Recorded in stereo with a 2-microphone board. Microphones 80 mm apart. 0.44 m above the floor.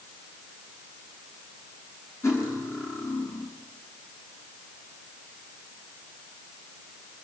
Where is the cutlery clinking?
35° left (ahead or behind), 5 m.